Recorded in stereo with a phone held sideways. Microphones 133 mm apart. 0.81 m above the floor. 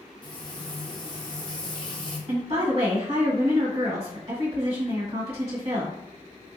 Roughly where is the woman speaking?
Right.